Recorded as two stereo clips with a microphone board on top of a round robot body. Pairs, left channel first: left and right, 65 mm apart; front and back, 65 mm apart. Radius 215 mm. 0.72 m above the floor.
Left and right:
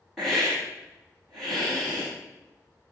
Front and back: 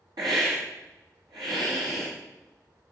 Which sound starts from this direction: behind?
A hiss, at 0.2 s.